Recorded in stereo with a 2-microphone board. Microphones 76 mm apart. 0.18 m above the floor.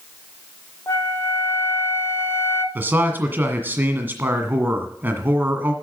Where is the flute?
40° left (ahead or behind), 0.9 m.